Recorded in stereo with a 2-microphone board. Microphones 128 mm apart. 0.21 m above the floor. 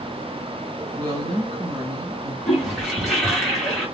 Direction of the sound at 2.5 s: Centre (ahead or behind).